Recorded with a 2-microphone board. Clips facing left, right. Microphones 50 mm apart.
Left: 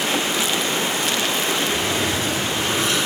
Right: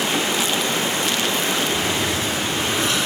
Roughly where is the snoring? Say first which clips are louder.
Even; left.